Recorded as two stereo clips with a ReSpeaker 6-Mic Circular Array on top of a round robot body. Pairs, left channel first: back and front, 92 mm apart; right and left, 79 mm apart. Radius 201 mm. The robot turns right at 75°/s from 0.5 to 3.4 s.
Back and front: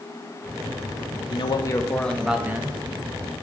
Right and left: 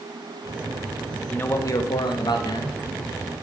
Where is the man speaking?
160° right, 1.0 m; by 2.8 s 50° right, 1.0 m.